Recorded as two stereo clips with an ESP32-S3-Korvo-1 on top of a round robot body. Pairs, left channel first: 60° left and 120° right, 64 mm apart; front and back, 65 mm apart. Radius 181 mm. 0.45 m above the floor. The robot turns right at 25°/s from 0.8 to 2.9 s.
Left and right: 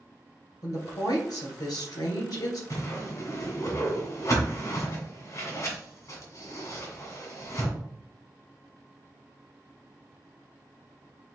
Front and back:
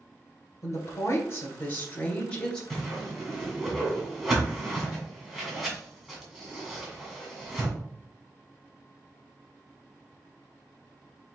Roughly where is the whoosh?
Left.